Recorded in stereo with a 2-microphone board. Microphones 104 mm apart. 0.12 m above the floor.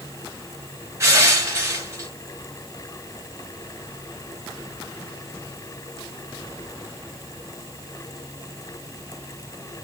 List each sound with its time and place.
1.0 s crushing: 25° right (ahead or behind), 1.2 m